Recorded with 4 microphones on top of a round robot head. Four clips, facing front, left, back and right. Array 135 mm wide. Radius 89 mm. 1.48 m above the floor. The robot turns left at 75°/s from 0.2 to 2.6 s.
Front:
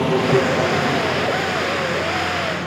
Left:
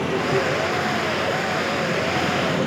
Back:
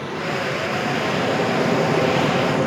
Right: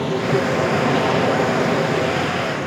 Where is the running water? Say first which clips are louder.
Right 2 dB, front 8 dB; 25° right, 3 m; by 2.7 s 155° left, 3 m.